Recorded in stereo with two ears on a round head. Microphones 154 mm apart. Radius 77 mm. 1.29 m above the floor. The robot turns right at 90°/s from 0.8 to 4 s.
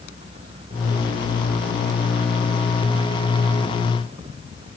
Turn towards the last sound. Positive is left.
No sound to turn to.